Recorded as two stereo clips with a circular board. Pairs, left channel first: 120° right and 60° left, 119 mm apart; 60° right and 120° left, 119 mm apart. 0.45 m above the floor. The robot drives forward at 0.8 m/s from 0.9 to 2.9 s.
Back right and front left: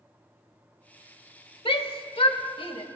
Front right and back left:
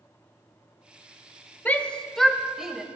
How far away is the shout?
About 1.2 m.